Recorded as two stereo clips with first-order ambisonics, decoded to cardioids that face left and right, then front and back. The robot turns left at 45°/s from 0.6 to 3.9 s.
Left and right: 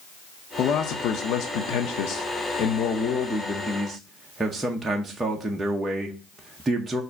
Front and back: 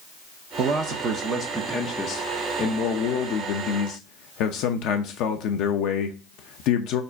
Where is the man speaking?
135° left, 0.7 m; by 7.0 s 10° right, 0.7 m.